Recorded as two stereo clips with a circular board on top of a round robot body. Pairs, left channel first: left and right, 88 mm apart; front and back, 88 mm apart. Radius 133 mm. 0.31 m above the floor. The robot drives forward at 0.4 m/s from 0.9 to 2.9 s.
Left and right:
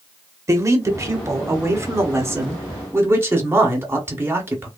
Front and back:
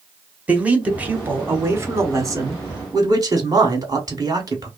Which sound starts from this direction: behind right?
A man speaking, at 0.5 s.